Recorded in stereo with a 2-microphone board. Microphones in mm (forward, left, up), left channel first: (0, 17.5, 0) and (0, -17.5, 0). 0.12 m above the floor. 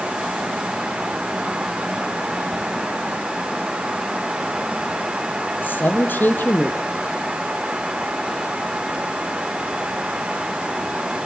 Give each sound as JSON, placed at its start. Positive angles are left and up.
{"t": 5.6, "sound": "a man speaking", "side_deg": 70, "distance_m": 3.0}